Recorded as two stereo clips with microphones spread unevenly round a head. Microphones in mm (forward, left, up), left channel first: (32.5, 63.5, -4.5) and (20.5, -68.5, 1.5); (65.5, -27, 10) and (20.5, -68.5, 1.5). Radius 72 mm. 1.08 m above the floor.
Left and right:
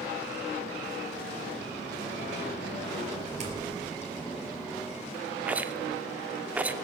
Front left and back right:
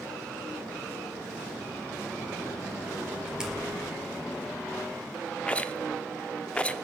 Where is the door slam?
60° right, 4.5 m.